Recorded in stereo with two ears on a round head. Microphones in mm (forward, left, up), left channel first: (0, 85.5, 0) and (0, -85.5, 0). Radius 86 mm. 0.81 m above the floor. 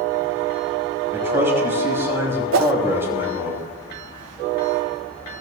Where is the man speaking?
10° right (ahead or behind), 6 m.